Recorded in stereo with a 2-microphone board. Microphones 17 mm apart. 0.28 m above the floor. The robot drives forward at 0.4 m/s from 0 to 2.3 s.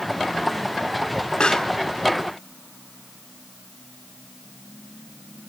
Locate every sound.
1.4 s a pop: 50° left (ahead or behind), 1.2 m